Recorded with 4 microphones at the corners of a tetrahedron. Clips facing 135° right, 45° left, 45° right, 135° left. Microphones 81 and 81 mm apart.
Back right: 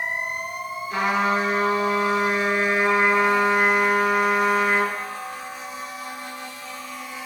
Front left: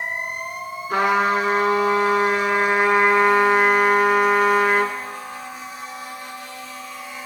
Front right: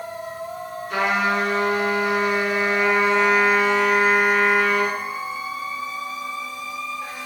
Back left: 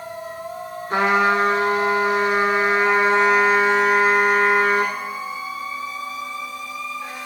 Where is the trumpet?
85° left, 1.6 m.